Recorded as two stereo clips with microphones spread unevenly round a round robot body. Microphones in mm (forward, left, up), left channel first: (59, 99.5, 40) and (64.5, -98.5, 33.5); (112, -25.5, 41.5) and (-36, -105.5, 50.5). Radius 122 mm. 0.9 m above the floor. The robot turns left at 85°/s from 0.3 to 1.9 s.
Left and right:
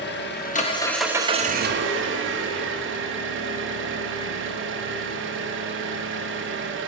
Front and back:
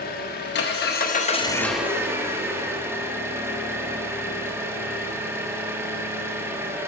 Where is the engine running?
60° left, 0.9 m; by 6.9 s 75° right, 0.9 m.